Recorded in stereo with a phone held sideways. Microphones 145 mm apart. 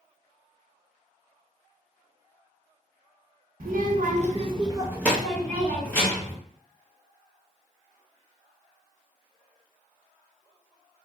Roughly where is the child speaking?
Right.